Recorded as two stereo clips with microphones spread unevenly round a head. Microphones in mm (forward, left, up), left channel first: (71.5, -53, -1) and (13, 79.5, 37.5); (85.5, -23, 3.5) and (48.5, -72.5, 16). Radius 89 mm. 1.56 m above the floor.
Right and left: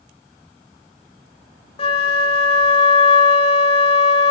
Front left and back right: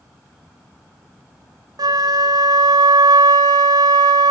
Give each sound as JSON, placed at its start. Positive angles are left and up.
{"t": 1.8, "sound": "a flute", "azimuth_deg": -110, "distance_m": 0.6}